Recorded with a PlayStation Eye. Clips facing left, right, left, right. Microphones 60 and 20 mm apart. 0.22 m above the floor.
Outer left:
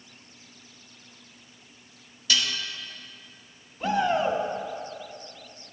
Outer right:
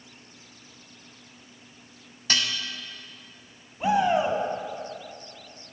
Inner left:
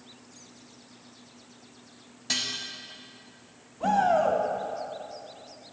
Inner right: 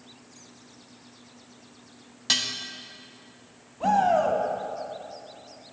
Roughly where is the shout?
Centre.